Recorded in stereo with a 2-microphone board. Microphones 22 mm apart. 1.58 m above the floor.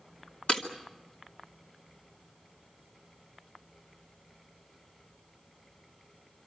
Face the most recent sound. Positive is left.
turn(degrees=50)  # may be behind; listen again after turning